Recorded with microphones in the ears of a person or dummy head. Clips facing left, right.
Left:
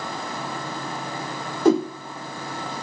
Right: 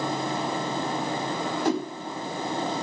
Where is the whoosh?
70° left (ahead or behind), 1.2 m.